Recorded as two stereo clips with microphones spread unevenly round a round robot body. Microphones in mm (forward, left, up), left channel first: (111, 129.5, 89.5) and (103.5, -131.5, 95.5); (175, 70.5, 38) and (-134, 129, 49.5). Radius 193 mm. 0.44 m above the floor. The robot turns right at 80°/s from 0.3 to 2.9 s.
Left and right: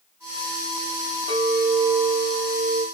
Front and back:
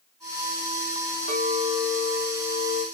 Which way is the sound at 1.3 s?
155° left.